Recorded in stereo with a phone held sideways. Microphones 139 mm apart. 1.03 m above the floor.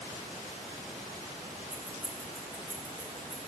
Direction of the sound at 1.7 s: 55° right (ahead or behind).